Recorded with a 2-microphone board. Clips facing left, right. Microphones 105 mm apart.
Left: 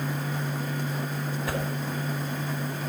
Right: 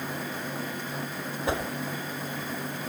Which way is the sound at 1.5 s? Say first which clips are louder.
Right 3 dB; 25° right (ahead or behind).